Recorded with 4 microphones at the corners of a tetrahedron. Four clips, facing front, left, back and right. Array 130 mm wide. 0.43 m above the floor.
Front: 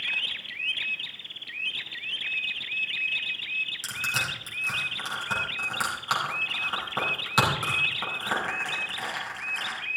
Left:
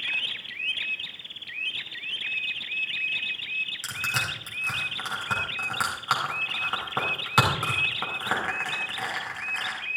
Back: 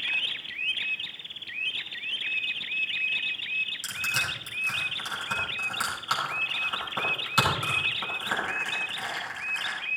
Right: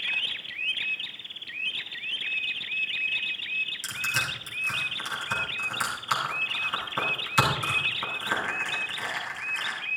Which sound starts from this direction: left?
Crushing, at 3.8 s.